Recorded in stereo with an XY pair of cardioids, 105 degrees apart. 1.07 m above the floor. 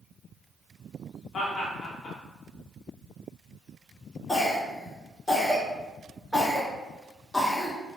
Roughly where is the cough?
Ahead.